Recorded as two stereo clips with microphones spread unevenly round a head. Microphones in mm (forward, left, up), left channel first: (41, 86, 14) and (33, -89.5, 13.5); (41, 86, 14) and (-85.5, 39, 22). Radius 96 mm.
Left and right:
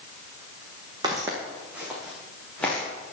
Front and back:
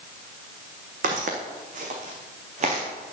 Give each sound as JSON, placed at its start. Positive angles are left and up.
{"t": 1.0, "sound": "footsteps", "azimuth_deg": -165, "distance_m": 3.5}